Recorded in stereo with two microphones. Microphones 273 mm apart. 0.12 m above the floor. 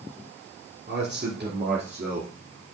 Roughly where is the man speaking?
Right.